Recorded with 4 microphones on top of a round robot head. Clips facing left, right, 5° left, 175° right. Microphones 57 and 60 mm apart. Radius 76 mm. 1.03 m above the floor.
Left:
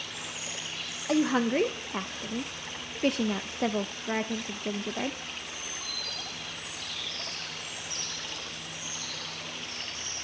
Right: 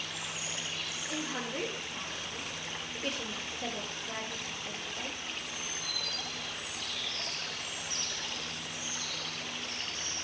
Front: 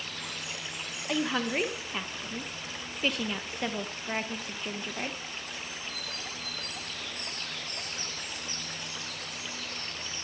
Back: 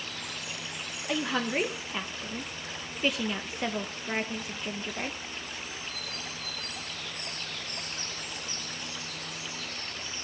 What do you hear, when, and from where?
1.1 s a woman speaking: 95° left, 1.2 m